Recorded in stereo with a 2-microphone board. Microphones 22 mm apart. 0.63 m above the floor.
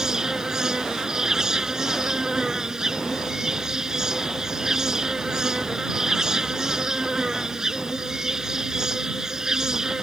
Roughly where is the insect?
Right.